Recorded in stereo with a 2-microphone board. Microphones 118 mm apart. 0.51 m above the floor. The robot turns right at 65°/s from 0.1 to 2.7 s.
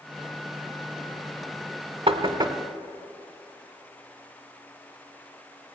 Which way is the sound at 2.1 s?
55° right (ahead or behind).